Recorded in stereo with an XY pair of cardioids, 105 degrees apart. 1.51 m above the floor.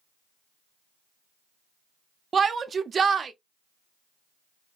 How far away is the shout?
About 0.5 m.